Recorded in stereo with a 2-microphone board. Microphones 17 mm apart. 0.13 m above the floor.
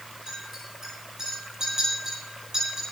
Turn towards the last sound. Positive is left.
turn(degrees=-35)  # may be behind; listen again after turning